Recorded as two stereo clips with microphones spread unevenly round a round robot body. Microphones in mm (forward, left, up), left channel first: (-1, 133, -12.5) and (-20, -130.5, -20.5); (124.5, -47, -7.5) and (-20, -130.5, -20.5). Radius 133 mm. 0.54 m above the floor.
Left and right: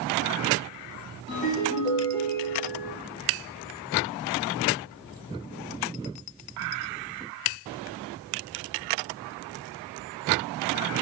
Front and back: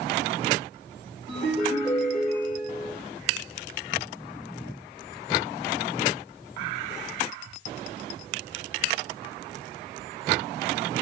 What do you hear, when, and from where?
1.3 s a ringtone: 125° left, 1.6 m